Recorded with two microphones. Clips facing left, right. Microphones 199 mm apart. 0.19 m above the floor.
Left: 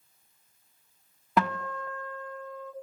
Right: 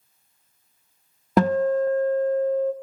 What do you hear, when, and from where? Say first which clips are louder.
1.4 s a guitar: right 11 dB; 40° right (ahead or behind), 0.6 m